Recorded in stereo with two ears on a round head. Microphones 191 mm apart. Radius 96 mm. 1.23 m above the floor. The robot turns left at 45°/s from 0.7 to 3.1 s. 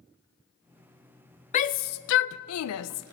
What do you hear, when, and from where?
1.5 s a shout: 35° left (ahead or behind), 0.5 m; by 3.1 s 75° left (ahead or behind), 0.5 m